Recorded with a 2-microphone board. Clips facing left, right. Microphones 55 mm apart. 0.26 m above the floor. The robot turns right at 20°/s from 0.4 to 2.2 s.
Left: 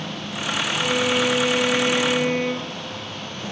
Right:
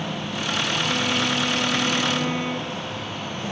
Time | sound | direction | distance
0.8 | a violin | 70° left (ahead or behind) | 0.7 m